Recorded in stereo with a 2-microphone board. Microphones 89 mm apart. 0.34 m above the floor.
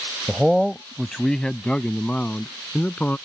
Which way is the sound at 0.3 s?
Centre (ahead or behind).